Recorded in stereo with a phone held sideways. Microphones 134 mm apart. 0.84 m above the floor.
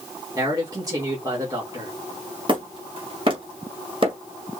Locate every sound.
0.3 s a man speaking: 25° right (ahead or behind), 2.5 m
2.5 s hammering: 40° right (ahead or behind), 1.9 m